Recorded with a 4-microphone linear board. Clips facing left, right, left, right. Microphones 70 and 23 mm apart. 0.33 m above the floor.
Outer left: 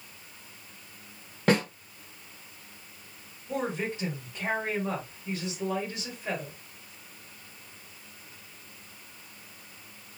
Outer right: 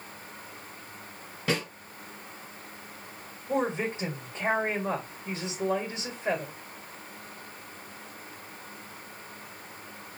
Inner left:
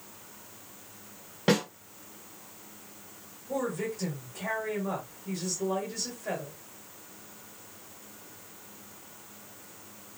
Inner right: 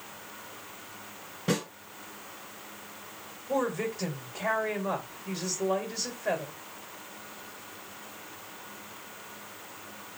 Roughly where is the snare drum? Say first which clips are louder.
Outer left 5 dB, inner left 4 dB; left.